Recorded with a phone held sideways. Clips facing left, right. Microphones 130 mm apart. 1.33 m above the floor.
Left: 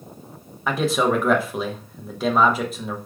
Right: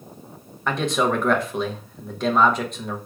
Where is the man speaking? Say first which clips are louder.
Left 1 dB; 5° left (ahead or behind), 0.9 m.